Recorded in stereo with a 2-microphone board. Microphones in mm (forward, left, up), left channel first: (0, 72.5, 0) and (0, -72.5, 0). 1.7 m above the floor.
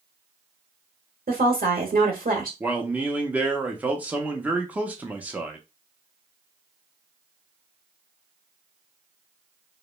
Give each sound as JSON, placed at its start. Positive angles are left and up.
{"t": 1.3, "sound": "a woman speaking", "side_deg": -75, "distance_m": 0.8}
{"t": 2.6, "sound": "a man speaking", "side_deg": -10, "distance_m": 0.6}